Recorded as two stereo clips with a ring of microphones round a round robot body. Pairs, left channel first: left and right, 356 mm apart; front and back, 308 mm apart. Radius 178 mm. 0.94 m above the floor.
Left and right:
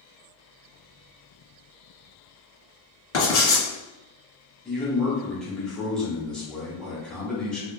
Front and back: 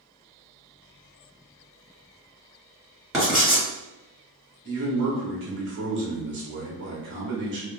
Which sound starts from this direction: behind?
A man speaking, at 4.7 s.